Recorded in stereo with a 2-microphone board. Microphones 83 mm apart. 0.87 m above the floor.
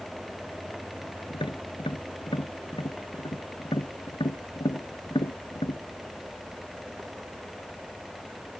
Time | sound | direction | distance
1.3 | tapping | 70° left (ahead or behind) | ?